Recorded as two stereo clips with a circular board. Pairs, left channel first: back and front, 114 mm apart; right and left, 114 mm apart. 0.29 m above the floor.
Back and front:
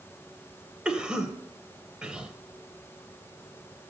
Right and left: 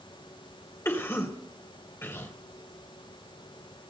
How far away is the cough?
About 1.0 m.